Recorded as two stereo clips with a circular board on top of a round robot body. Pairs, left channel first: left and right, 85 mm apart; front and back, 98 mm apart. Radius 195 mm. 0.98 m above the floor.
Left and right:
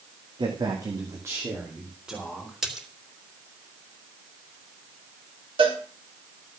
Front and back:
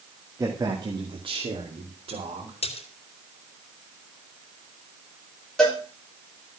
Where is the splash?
5° right, 3.5 m.